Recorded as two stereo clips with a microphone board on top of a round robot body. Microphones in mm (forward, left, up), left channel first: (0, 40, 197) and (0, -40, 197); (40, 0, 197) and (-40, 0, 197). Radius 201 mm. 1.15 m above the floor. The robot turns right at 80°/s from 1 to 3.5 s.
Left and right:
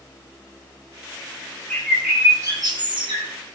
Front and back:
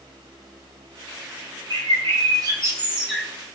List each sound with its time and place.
1.7 s a bird: 160° left, 2.5 m; by 3.3 s 75° right, 2.5 m